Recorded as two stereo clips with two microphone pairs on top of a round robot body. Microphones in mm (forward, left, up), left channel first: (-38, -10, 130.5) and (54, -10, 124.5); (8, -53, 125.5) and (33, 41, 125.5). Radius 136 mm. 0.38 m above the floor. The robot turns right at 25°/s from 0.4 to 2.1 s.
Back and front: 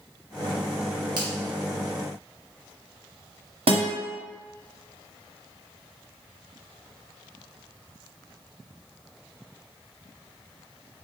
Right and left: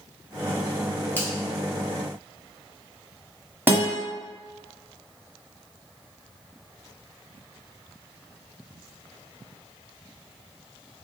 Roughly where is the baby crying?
I don't hear a baby crying.